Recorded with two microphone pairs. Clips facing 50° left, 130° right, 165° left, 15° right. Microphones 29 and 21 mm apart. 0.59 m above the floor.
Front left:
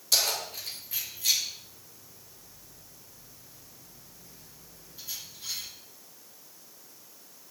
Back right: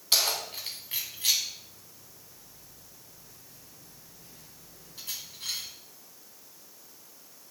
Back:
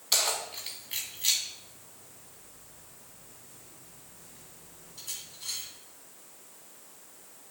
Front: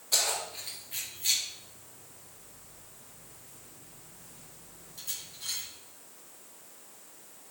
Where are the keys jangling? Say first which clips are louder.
Back right 1 dB, back 1 dB; straight behind, 3 m; by 5.7 s 110° right, 3 m.